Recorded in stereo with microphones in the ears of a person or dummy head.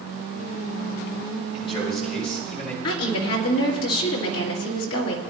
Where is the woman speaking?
85° left, 2.5 m.